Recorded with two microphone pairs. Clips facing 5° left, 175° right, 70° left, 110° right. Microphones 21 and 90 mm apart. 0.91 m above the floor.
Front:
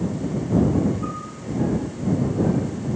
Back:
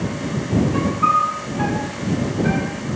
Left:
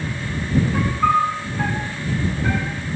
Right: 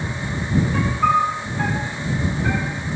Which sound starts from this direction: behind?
A piano, at 0.7 s.